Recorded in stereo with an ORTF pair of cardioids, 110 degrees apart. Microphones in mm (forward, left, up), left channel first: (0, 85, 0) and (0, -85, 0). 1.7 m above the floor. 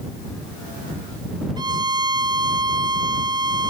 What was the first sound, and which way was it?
A violin, 25° right.